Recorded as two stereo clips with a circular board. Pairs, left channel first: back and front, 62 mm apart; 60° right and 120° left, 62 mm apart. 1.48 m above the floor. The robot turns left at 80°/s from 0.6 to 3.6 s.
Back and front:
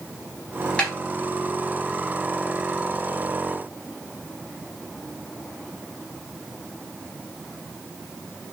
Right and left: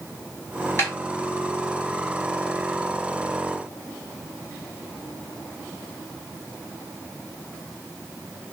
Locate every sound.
0.8 s a snare drum: 110° right, 4 m; by 0.9 s 120° right, 4 m